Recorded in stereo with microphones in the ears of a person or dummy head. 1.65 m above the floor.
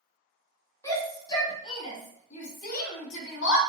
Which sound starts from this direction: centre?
A shout, at 0.8 s.